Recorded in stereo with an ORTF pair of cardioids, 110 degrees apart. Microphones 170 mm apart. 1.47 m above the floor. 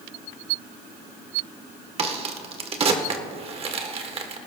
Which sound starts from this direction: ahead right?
A crack, at 2.0 s.